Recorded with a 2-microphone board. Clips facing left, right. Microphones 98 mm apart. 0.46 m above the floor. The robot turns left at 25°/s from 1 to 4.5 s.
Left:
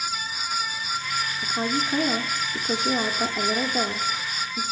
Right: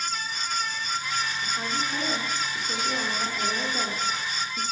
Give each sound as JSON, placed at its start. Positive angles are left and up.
{"t": 1.4, "sound": "a woman speaking", "azimuth_deg": 110, "distance_m": 0.8}